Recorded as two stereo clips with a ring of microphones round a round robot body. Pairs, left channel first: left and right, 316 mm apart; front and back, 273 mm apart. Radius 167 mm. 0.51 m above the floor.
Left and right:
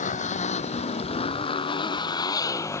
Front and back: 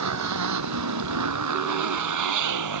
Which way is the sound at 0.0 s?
160° left.